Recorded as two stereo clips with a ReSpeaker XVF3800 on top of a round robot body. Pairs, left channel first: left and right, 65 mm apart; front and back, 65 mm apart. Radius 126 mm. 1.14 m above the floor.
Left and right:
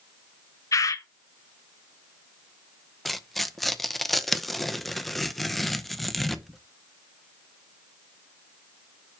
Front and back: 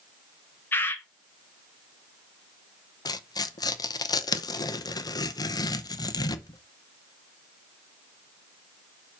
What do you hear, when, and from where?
0.7 s a bird: 55° left, 0.8 m
3.0 s tearing paper: straight ahead, 0.8 m